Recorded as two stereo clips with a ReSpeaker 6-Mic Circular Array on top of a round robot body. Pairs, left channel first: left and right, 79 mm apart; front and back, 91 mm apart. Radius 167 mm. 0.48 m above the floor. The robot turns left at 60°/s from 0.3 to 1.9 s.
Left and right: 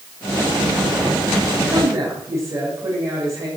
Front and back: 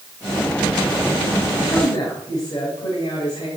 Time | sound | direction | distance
1.6 | a woman speaking | 25° right | 6 m